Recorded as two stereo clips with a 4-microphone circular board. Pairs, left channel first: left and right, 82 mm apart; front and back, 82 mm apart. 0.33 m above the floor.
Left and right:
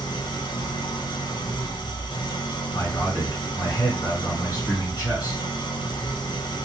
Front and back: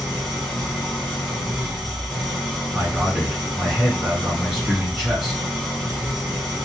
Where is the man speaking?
95° left, 2.0 m.